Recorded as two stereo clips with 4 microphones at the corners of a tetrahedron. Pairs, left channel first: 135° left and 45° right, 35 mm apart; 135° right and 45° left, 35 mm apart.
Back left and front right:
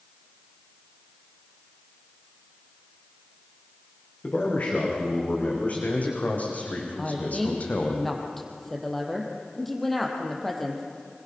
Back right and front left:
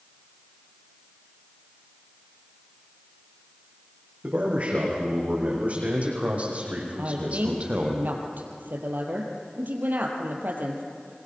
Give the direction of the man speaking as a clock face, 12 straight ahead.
9 o'clock.